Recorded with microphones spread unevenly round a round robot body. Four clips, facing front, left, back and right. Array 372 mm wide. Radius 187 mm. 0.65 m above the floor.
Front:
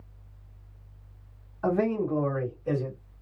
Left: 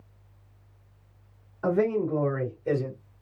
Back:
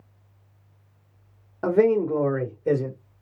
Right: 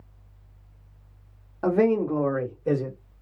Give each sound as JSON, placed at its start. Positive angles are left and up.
{"t": 1.6, "sound": "a man speaking", "azimuth_deg": -145, "distance_m": 2.0}